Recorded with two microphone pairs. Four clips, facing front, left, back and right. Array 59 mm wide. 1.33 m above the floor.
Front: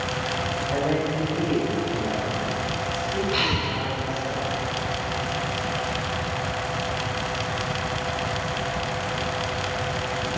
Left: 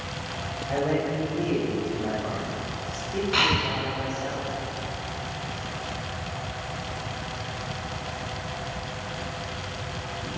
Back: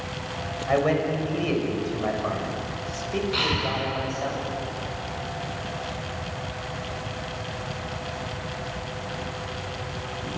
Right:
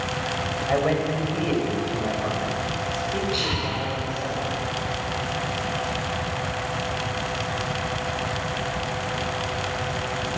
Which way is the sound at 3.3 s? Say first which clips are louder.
Left 3 dB, front 1 dB; 80° left.